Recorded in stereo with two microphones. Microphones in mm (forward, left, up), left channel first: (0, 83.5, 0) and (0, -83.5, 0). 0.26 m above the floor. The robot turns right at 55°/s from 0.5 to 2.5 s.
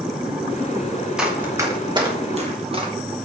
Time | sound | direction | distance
1.2 | running footsteps | 5° right (ahead or behind) | 3.5 m